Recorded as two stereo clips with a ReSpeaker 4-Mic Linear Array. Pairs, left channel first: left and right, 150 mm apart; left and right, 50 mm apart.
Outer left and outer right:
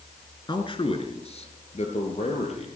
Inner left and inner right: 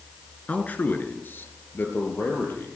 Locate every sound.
0.5 s a man speaking: 30° left (ahead or behind), 1.3 m; by 2.7 s 45° left (ahead or behind), 2.5 m